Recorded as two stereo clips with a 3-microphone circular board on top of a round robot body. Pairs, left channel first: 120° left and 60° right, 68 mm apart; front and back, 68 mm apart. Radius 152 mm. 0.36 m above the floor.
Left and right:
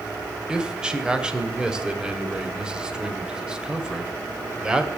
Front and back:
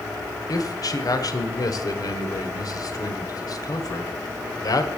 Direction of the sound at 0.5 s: 20° left.